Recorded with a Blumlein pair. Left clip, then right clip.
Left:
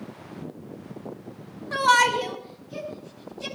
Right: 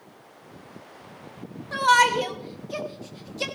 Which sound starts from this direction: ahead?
A shout, at 1.7 s.